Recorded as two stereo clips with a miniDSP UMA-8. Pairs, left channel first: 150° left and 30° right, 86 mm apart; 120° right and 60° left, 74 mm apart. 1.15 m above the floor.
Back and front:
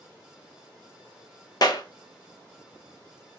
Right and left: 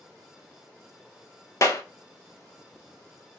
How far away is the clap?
About 0.5 m.